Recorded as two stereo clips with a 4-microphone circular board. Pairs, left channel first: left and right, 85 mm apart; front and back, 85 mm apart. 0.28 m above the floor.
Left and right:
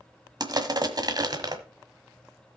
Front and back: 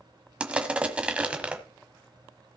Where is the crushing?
105° right, 1.3 m.